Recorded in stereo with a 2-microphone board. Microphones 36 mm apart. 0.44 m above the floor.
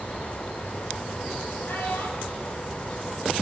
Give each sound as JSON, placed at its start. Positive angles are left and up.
{"t": 1.6, "sound": "a child speaking", "side_deg": 80, "distance_m": 7.5}